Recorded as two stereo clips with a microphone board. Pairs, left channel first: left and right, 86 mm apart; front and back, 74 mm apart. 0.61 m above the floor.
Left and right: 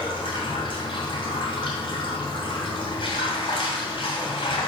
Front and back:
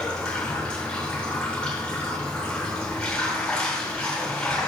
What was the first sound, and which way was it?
Running water, 75° left.